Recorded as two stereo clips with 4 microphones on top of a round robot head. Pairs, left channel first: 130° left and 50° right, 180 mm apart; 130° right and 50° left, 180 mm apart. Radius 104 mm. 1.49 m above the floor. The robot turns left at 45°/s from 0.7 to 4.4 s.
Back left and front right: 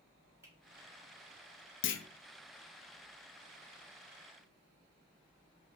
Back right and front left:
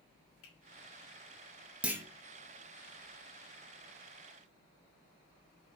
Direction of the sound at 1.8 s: 135° left.